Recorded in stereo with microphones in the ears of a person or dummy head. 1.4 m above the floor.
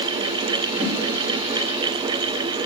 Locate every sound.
0.8 s a whoosh: 5° right (ahead or behind), 3.5 m